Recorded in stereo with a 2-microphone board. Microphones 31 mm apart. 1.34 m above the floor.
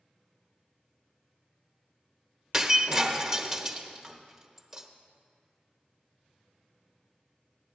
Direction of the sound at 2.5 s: 15° right (ahead or behind).